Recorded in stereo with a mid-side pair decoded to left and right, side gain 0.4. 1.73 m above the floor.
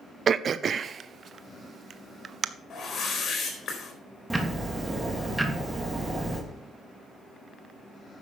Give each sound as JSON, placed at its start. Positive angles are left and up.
{"t": 0.3, "sound": "throat clearing", "azimuth_deg": -50, "distance_m": 0.7}
{"t": 2.7, "sound": "a whoosh", "azimuth_deg": 55, "distance_m": 4.0}
{"t": 4.3, "sound": "ticking", "azimuth_deg": -15, "distance_m": 3.0}